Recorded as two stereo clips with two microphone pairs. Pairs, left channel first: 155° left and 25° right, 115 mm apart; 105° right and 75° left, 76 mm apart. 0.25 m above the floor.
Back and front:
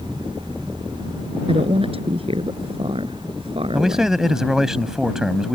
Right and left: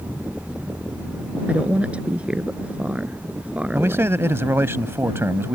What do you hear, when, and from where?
1.5 s a woman speaking: straight ahead
3.7 s a man speaking: 55° left